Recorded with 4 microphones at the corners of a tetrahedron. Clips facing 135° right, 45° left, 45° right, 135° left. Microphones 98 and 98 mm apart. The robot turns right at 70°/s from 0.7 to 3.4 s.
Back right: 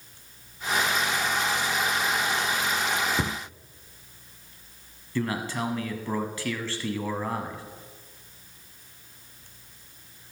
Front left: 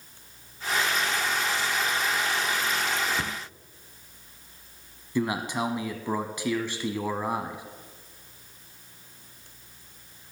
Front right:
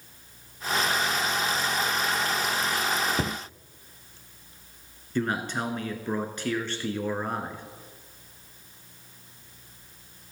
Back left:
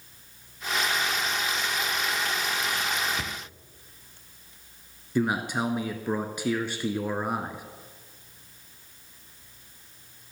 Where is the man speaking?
80° left, 1.1 m.